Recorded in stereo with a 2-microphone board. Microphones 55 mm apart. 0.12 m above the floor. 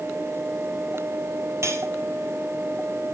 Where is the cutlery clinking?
55° right (ahead or behind), 1.7 m.